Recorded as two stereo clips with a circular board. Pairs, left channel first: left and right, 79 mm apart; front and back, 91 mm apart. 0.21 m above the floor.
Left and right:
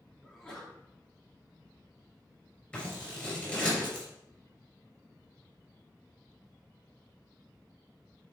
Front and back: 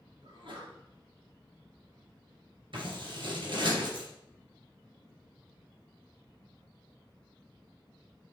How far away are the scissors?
About 3 m.